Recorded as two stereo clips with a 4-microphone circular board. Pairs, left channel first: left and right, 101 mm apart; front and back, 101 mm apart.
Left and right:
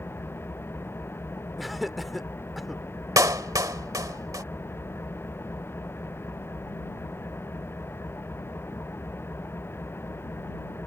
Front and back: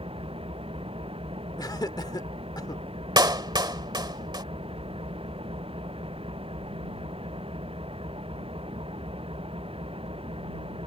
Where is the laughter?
Straight ahead.